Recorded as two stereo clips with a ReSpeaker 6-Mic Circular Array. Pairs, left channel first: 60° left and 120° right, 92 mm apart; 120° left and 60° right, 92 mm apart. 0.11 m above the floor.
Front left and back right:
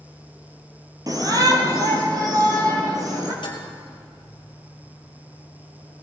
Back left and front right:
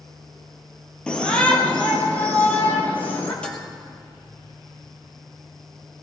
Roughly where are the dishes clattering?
Ahead left.